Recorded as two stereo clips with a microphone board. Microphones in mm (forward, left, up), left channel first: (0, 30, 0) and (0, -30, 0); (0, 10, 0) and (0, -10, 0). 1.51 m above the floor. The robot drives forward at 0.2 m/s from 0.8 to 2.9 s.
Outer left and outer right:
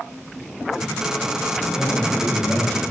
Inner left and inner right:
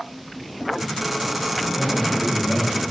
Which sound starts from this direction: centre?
A man speaking, at 1.7 s.